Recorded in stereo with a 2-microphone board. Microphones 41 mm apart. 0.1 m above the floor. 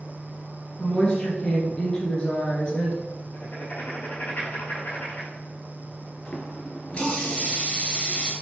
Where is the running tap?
30° left (ahead or behind), 1.0 m.